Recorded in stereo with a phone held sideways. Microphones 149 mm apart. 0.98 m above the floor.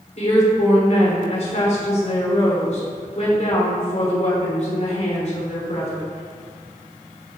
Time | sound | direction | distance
0.2 | a woman speaking | 50° left (ahead or behind) | 3 m